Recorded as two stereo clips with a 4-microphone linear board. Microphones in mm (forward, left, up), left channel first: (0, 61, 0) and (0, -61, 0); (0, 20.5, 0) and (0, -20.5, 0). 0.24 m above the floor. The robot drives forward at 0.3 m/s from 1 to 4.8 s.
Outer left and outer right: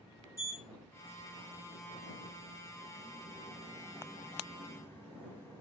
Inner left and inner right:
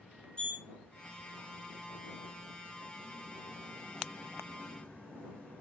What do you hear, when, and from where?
0.4 s a sliding door: 25° left (ahead or behind), 1.4 m; by 5.6 s 20° left (ahead or behind), 1.9 m